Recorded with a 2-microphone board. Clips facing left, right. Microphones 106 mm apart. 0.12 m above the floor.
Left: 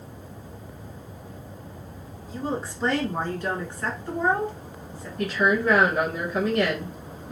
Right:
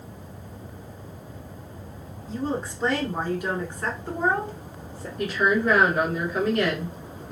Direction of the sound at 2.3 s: 5° left (ahead or behind).